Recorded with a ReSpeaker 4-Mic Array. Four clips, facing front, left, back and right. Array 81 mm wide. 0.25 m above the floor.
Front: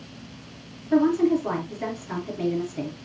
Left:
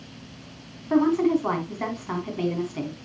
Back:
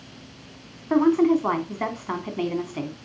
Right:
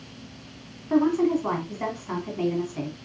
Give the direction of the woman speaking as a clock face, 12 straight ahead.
6 o'clock.